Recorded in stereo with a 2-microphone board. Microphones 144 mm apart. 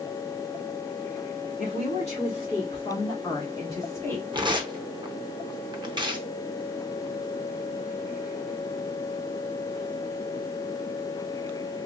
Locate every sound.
1.6 s a woman speaking: 55° left (ahead or behind), 2.0 m; by 4.2 s 10° left (ahead or behind), 1.3 m
4.3 s tearing paper: 30° right (ahead or behind), 0.6 m